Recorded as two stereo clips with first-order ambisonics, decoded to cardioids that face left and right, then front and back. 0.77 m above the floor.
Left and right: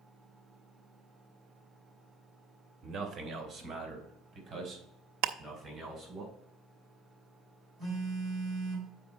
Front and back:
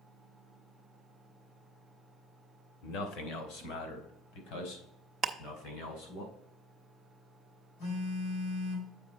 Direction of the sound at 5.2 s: 110° right.